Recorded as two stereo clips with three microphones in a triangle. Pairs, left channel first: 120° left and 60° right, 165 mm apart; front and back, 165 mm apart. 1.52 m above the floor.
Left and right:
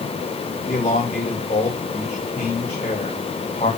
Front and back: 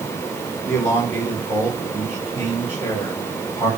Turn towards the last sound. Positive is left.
turn(degrees=65)